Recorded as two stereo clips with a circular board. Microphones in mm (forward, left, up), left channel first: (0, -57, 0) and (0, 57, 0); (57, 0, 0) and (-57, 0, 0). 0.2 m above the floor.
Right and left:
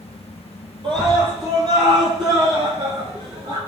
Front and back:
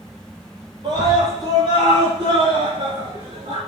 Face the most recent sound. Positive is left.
turn(degrees=140)